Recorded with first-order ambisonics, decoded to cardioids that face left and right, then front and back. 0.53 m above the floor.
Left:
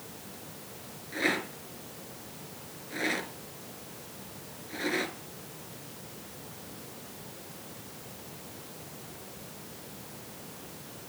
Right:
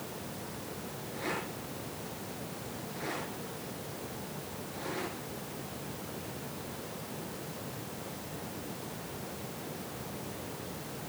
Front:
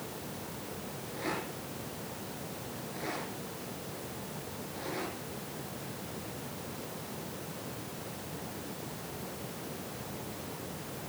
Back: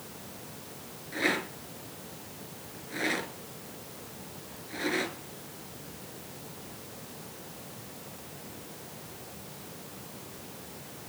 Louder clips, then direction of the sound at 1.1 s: Left 8 dB, back 8 dB; 140° left.